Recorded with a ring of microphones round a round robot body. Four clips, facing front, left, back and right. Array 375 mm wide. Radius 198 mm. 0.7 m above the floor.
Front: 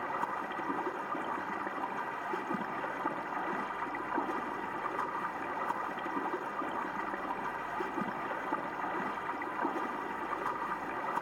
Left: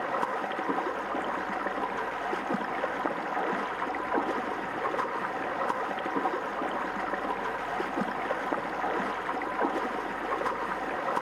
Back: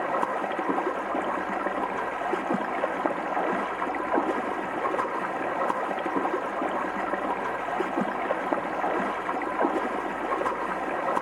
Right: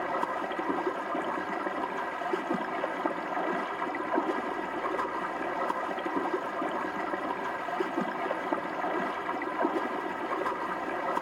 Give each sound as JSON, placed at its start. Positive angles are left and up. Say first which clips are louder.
{"t": 0.0, "sound": "running water", "louder": "left 1 dB, back 9 dB", "azimuth_deg": 170, "distance_m": 1.3}